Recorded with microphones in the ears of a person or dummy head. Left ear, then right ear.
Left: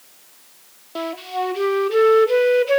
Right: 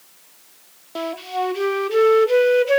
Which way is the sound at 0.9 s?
10° right (ahead or behind).